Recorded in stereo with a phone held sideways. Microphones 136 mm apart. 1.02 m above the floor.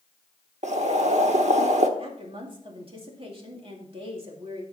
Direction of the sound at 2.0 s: 40° right (ahead or behind).